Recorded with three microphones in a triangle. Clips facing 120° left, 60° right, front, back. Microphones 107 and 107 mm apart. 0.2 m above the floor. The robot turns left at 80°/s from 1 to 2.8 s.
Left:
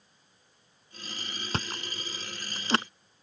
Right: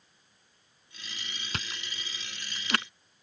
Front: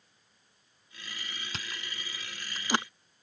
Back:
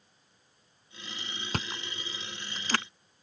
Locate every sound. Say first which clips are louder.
1.5 s chewing: left 6 dB, back 9 dB; 165° left; by 2.9 s 65° left